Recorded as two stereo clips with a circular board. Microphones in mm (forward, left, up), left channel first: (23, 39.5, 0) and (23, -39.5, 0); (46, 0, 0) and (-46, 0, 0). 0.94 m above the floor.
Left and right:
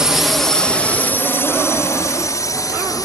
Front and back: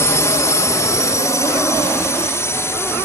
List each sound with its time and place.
0.0 s a drone: 15° right; by 3.0 s 60° left